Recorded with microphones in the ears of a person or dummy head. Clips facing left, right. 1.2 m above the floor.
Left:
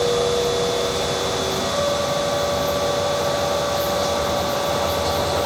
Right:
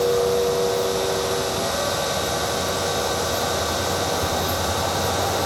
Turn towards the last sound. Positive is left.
turn(degrees=40)  # may be behind; listen again after turning